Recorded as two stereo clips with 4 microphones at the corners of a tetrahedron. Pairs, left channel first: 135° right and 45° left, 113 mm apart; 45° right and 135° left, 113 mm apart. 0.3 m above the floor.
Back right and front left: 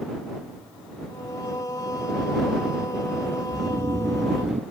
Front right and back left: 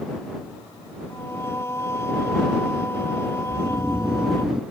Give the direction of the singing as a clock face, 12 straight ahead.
3 o'clock.